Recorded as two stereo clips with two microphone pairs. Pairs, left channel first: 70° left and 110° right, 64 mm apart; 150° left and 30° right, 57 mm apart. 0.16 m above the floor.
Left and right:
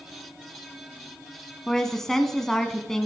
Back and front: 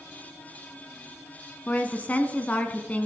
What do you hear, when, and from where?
1.7 s a woman speaking: 150° left, 1.2 m